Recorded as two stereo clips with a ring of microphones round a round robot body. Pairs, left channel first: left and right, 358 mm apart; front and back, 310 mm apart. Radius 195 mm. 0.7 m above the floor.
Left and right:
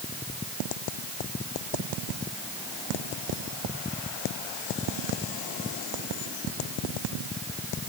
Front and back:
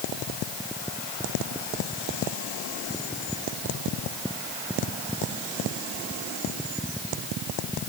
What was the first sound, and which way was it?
Only background noise.